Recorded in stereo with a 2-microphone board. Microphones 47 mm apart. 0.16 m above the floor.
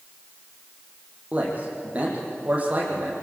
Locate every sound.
1.3 s a man speaking: 30° right (ahead or behind), 8 m